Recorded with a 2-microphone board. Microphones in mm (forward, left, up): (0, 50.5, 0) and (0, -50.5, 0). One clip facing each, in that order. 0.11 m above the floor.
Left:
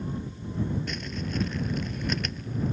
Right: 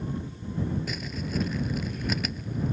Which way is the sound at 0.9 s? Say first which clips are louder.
Even; 5° right (ahead or behind).